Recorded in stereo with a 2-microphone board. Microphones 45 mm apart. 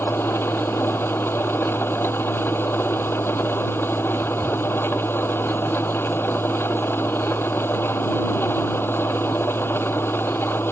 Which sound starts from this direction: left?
An engine running, at 0.0 s.